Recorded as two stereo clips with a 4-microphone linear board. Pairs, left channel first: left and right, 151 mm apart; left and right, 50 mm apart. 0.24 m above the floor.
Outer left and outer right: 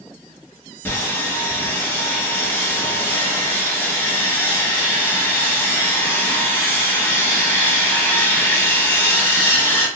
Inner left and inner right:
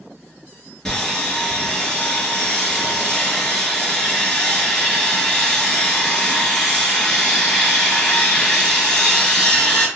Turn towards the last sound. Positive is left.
turn(degrees=15)  # may be behind; listen again after turning